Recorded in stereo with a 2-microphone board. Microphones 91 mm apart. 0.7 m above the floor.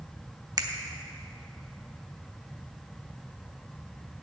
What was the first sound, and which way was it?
A finger snap, 45° right (ahead or behind).